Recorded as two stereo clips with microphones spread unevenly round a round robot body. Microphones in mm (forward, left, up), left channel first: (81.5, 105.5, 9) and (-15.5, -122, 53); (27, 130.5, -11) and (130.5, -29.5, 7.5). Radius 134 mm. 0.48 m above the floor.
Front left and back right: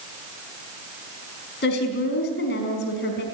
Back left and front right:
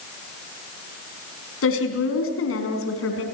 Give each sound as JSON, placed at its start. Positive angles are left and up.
{"t": 1.6, "sound": "a woman speaking", "azimuth_deg": 120, "distance_m": 4.5}